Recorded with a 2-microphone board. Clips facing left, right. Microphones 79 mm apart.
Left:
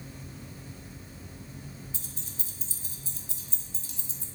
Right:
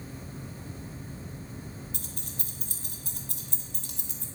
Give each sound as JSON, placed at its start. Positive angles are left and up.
{"t": 1.9, "sound": "keys jangling", "side_deg": -60, "distance_m": 1.0}